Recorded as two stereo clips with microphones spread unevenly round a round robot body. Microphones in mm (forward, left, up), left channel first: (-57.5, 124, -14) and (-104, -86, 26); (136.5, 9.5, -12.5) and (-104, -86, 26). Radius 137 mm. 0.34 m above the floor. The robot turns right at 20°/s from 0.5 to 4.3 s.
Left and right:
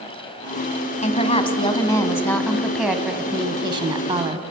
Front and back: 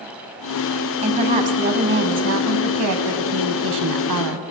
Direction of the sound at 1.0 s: 130° left.